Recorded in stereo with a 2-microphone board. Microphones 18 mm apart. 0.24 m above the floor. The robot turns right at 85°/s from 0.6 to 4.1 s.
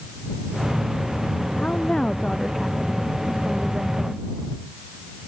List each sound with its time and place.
1.6 s a woman speaking: 95° left; by 4.2 s 50° right